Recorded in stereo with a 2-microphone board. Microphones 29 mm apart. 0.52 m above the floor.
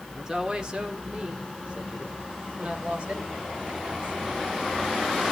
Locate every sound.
0.1 s a woman speaking: 20° right (ahead or behind), 1.6 m; by 4.4 s 45° right (ahead or behind), 3.5 m